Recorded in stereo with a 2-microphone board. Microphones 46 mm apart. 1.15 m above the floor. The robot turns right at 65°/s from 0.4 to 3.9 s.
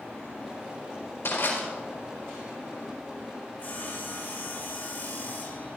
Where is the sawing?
40° left (ahead or behind), 3.5 m; by 5.7 s 60° left (ahead or behind), 3.5 m.